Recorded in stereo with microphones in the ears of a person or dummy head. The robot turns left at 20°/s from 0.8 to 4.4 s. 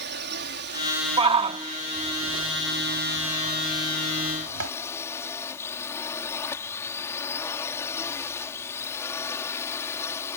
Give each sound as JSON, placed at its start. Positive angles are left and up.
{"t": 0.0, "sound": "a drone", "azimuth_deg": -120}
{"t": 1.2, "sound": "a shout", "side_deg": -30}